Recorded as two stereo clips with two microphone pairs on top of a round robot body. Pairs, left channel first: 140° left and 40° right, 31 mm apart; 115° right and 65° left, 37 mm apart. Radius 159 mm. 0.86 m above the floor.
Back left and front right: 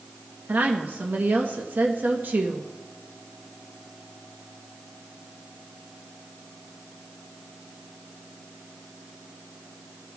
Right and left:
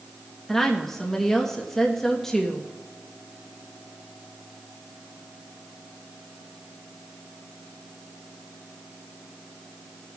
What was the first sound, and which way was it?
A woman speaking, 35° right.